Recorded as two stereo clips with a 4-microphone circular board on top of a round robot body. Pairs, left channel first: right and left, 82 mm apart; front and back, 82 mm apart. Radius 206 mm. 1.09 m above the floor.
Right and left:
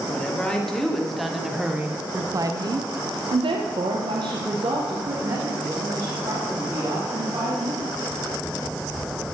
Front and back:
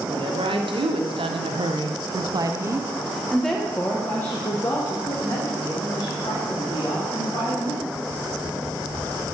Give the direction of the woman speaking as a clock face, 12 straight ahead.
6 o'clock.